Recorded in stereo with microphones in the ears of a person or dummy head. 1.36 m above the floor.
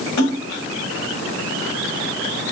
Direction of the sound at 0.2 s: 85° left.